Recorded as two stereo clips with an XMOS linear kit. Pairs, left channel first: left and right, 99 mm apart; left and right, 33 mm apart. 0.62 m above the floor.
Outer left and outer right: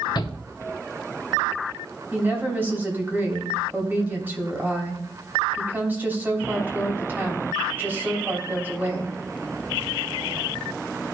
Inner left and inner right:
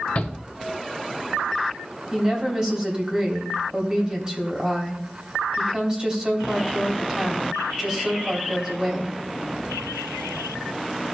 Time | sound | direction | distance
0.1 | a shout | 50° left (ahead or behind) | 1.0 m
2.1 | a woman speaking | 20° right (ahead or behind) | 3 m